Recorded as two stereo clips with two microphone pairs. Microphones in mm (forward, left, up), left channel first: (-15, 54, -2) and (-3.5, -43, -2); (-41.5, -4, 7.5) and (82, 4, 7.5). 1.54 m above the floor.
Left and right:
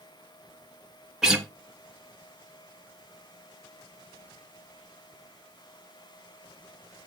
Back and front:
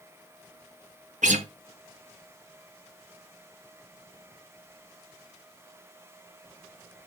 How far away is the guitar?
About 1.2 m.